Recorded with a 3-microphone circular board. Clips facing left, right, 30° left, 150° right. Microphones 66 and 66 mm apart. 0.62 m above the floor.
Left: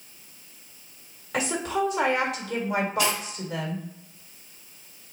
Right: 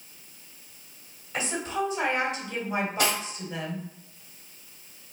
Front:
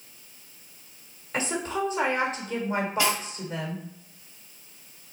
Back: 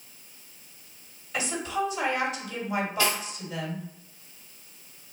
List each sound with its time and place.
1.3 s a woman speaking: 80° left, 1.6 m
3.0 s cutlery clinking: 40° right, 1.7 m